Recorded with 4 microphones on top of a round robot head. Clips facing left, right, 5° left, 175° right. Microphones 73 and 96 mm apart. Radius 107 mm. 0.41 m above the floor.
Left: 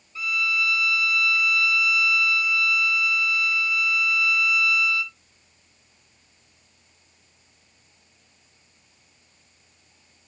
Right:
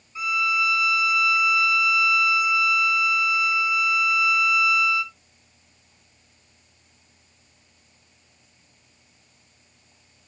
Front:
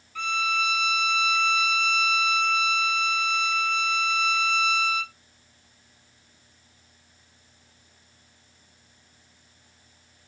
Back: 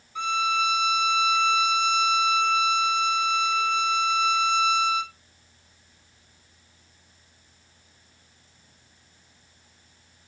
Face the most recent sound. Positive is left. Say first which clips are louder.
# right 3 dB, back 3 dB
turn(degrees=-135)